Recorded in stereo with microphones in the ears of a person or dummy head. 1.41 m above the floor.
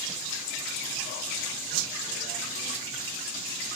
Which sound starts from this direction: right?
A whoosh, at 1.7 s.